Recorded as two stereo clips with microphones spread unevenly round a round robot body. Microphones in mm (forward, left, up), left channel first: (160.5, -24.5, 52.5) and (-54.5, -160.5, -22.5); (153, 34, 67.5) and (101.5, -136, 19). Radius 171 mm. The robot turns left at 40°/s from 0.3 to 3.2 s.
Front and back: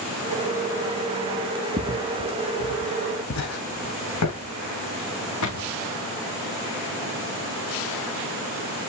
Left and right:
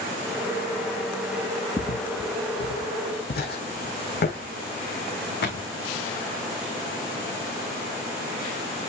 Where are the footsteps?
125° left, 1.6 m; by 5.7 s 60° left, 4 m.